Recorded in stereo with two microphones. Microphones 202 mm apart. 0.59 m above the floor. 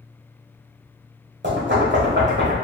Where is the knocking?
60° right (ahead or behind), 1.5 m.